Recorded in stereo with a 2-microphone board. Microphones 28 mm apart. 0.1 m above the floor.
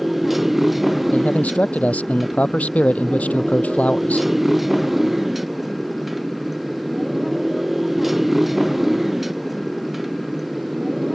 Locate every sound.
0.0 s a motorcycle: 5° right (ahead or behind)
1.1 s a man speaking: 60° left (ahead or behind)